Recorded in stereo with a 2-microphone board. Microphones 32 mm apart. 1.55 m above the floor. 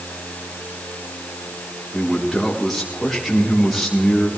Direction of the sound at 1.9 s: 5° left (ahead or behind).